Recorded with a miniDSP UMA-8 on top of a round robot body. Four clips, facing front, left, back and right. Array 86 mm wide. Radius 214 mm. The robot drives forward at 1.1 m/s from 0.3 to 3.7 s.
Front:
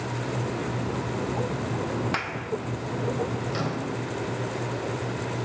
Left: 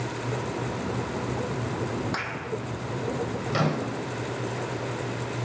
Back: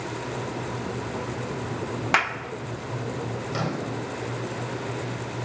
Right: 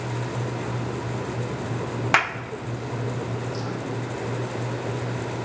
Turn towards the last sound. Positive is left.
turn(degrees=100)